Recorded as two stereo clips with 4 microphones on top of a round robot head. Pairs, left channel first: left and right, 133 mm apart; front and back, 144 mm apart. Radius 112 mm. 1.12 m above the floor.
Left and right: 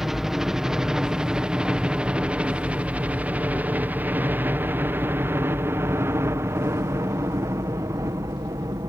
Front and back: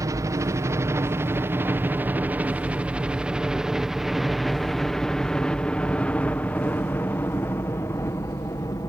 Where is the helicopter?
170° right; by 8.9 s 50° right.